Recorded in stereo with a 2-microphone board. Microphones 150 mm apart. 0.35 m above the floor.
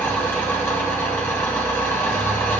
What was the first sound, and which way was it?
An engine running, 15° left (ahead or behind).